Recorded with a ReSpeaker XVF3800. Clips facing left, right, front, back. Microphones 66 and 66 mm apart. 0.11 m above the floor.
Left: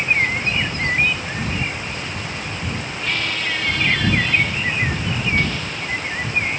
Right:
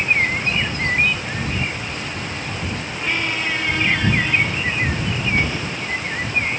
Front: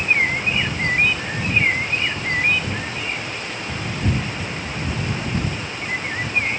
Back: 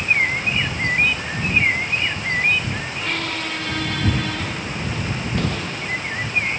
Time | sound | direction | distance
3.0 | a squeak | 165° right | ?